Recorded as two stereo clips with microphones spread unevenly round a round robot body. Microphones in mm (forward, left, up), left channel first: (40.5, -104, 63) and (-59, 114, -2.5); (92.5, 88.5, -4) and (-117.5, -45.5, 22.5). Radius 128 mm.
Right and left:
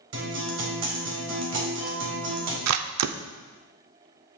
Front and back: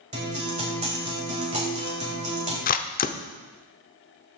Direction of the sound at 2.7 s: 90° left.